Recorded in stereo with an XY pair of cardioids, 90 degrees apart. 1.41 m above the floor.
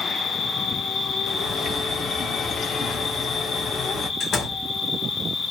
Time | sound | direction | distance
0.0 | an insect | 50° left | 1.0 m
1.3 | a bird | 60° left | 1.2 m
4.2 | a door slam | 60° left | 1.2 m